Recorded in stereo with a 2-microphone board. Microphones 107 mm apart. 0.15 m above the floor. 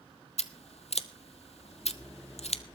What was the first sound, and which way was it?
Scissors, 75° left (ahead or behind).